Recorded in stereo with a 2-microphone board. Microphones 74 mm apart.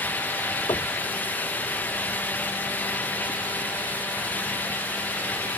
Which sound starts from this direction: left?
Knocking, at 0.7 s.